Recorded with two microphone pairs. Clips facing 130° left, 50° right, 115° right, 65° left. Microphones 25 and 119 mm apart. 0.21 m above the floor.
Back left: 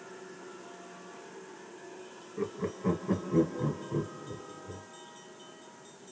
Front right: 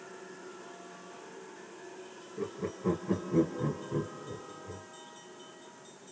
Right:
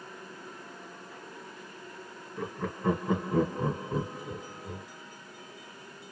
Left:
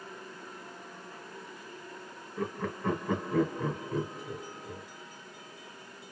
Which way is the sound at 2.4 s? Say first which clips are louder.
Back left 2 dB, left 1 dB; 160° left.